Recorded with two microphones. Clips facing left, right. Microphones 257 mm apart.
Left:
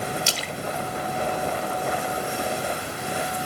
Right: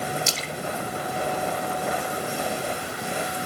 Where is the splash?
65° left (ahead or behind), 1.1 m.